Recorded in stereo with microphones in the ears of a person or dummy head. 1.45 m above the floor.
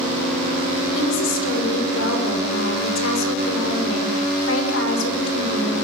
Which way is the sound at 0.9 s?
75° left (ahead or behind).